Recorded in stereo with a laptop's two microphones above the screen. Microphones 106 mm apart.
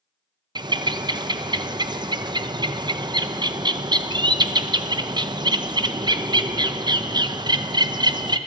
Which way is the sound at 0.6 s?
45° right (ahead or behind).